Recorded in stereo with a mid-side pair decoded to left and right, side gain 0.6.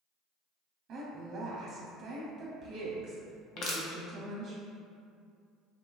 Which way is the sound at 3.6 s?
60° left.